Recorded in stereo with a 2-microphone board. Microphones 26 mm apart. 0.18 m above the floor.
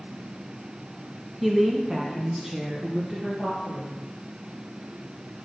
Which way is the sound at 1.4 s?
10° right (ahead or behind).